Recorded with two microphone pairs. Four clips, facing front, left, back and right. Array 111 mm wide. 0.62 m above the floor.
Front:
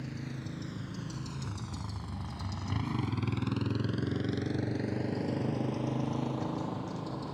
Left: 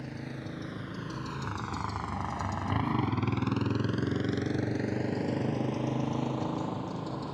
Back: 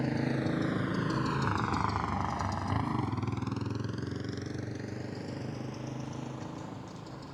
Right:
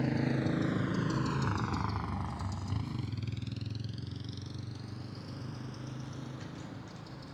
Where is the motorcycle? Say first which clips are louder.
Right 9 dB, back 10 dB; 155° right; by 7.4 s 60° left.